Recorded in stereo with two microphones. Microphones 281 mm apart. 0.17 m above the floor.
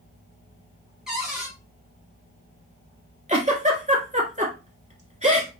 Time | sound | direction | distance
1.1 | a cupboard door | centre (ahead or behind) | 2.5 m
3.3 | a giggle | 25° right (ahead or behind) | 1.8 m